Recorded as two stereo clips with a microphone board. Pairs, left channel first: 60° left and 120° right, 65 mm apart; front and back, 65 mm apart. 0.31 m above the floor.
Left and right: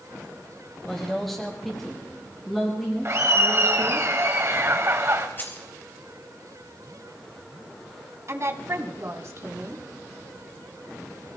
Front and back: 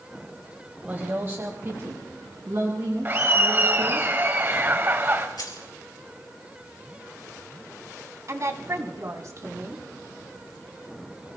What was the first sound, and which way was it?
A woman speaking, 145° left.